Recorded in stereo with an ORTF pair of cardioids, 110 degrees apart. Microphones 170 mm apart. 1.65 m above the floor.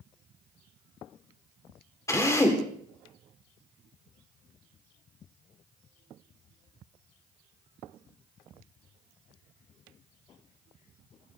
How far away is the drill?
About 3 m.